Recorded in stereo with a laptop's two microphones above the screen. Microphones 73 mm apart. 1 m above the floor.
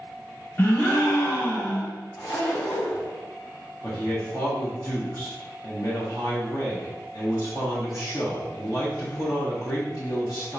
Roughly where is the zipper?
Left.